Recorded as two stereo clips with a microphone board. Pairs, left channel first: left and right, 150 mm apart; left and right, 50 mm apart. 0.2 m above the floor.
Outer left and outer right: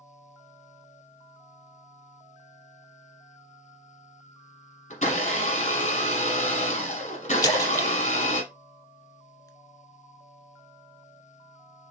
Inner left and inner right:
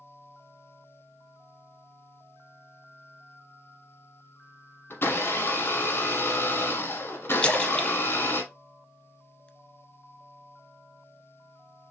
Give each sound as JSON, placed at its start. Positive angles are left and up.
{"t": 4.9, "sound": "a blender", "side_deg": 55, "distance_m": 1.3}
{"t": 7.4, "sound": "a splash", "side_deg": 20, "distance_m": 0.5}